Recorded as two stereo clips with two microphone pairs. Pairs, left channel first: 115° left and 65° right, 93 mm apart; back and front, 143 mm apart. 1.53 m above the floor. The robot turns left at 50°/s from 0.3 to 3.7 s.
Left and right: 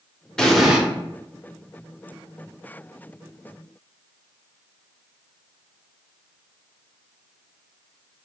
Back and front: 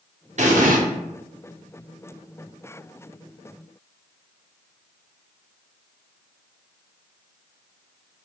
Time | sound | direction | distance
0.4 | an explosion | 35° left | 0.8 m